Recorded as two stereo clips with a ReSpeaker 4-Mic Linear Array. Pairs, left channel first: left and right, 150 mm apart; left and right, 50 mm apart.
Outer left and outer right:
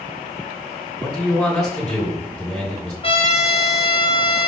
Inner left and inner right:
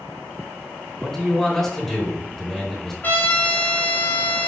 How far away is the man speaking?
About 2.5 m.